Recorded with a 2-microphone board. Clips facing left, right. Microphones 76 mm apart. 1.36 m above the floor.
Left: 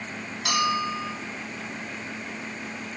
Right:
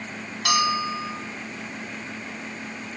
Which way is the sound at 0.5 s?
60° right (ahead or behind).